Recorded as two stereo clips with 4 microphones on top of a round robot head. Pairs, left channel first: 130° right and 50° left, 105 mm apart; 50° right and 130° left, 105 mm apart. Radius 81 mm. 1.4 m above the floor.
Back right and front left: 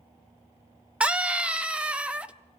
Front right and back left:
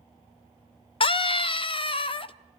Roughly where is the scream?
Ahead right.